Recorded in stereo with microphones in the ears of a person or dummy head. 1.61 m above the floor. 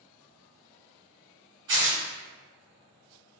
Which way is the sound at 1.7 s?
30° right (ahead or behind).